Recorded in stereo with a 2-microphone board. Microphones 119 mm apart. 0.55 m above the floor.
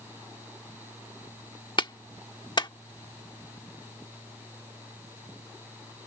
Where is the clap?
45° left (ahead or behind).